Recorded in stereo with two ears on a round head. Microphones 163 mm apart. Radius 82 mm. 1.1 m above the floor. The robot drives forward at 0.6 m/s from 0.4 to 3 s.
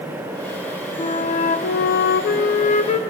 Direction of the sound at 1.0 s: 30° left (ahead or behind).